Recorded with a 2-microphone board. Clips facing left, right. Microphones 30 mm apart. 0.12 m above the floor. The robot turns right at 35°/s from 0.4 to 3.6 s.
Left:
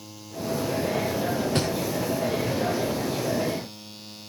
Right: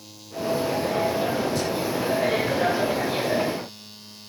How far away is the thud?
About 6 m.